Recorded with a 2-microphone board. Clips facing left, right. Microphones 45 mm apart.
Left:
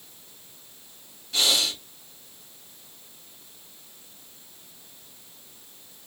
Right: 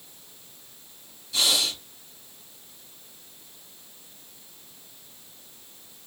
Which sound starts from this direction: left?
Breathing, at 1.3 s.